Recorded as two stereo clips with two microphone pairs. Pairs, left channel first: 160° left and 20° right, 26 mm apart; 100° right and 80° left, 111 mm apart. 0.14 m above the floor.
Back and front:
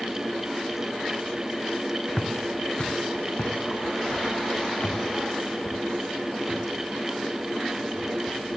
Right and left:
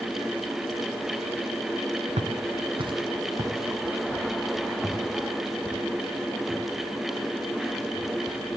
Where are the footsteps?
95° left, 0.9 m; by 8.1 s 175° left, 4.5 m.